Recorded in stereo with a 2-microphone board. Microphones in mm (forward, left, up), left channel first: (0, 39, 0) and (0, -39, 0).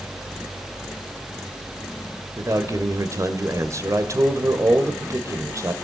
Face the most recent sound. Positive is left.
turn(degrees=-45)  # may be behind; listen again after turning